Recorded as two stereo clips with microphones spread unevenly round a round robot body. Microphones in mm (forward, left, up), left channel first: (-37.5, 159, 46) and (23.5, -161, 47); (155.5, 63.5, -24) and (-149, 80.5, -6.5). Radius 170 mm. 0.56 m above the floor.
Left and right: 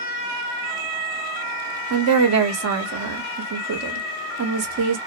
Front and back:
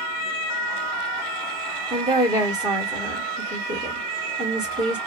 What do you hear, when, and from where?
1.9 s a woman speaking: 105° right, 0.9 m